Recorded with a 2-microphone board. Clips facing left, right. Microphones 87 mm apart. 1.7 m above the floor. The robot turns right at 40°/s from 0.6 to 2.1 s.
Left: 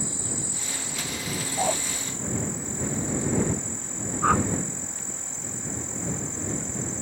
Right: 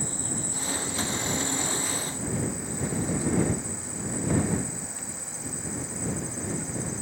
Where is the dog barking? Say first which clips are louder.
Left 5 dB; 45° left (ahead or behind); by 1.8 s 55° left (ahead or behind).